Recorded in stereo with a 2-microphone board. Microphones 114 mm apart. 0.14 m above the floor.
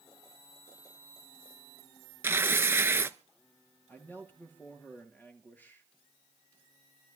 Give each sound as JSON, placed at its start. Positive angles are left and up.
{"t": 2.2, "sound": "tearing paper", "side_deg": -20, "distance_m": 0.7}
{"t": 3.9, "sound": "a man speaking", "side_deg": 15, "distance_m": 2.5}